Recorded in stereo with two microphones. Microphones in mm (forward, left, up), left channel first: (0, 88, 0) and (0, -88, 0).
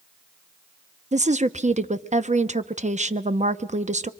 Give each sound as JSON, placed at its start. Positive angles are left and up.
{"t": 1.1, "sound": "a woman speaking", "side_deg": -40, "distance_m": 0.7}